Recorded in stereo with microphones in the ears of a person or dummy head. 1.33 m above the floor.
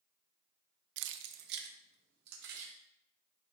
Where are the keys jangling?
65° right (ahead or behind), 0.5 m; by 2.7 s 60° right (ahead or behind), 2.5 m.